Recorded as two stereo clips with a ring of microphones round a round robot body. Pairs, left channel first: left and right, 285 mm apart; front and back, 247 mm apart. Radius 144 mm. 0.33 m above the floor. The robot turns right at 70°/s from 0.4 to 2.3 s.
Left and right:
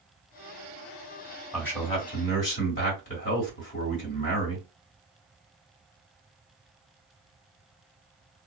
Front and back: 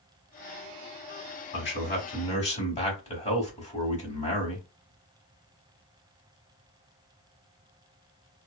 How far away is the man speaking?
About 2 m.